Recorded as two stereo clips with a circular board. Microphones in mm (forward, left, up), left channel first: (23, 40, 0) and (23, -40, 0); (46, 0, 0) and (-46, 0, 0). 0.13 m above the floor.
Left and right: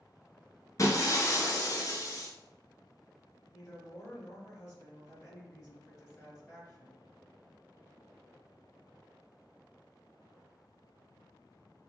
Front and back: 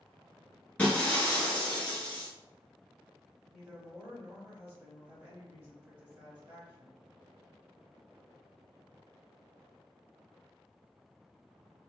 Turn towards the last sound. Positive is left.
turn(degrees=130)